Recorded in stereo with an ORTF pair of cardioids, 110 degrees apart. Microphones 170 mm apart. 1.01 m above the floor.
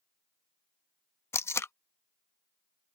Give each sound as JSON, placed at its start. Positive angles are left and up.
{"t": 1.3, "sound": "tape being pulled", "azimuth_deg": 15}